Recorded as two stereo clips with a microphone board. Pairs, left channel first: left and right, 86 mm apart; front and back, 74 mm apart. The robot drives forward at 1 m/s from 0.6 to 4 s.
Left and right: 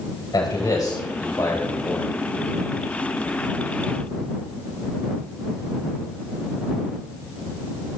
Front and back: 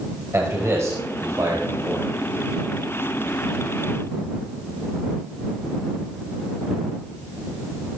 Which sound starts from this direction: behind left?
A man speaking, at 0.3 s.